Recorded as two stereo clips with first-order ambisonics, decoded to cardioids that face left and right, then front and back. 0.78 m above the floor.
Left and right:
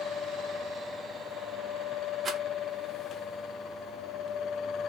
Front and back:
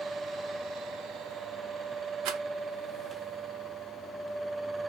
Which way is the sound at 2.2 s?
155° right.